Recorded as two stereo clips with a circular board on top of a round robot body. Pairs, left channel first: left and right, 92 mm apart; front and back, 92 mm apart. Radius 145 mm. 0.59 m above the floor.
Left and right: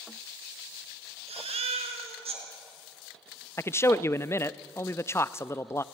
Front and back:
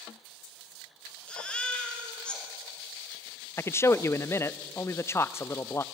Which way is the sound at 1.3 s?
80° right.